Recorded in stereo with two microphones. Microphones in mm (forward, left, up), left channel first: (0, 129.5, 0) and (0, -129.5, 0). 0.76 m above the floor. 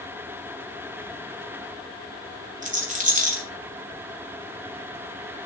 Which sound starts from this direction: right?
A rattle, at 2.6 s.